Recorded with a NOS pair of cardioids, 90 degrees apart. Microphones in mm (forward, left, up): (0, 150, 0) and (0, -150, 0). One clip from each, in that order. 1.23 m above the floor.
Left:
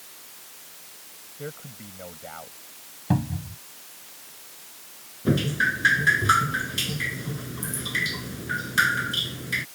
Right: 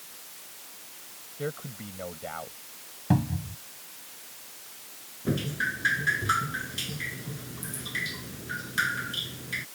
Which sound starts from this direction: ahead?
A cupboard door, at 3.1 s.